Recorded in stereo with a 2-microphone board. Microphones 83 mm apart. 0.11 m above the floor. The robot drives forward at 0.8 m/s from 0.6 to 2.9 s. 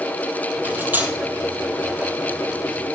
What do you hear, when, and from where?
0.6 s cutlery clinking: 20° right (ahead or behind), 2 m; by 1.1 s 25° right (ahead or behind), 1.7 m